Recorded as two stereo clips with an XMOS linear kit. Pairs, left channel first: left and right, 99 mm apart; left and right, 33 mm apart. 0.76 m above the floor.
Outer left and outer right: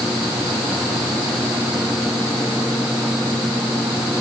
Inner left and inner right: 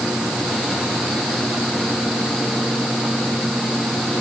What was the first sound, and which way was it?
Only background noise.